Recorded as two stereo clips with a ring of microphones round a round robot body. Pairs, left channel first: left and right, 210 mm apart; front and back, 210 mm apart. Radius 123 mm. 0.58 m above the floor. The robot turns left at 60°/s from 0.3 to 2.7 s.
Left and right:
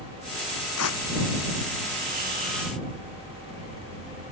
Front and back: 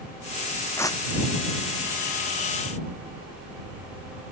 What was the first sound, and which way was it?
Tearing paper, 80° left.